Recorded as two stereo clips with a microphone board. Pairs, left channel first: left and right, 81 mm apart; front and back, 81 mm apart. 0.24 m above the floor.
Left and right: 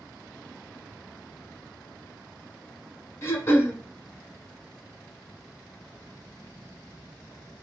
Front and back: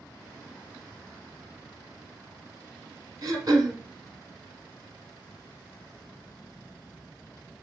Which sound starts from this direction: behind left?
Throat clearing, at 3.2 s.